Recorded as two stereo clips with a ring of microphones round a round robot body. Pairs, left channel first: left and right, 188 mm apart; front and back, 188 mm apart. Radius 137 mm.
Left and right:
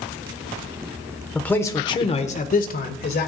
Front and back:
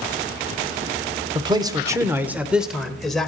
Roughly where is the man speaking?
Behind.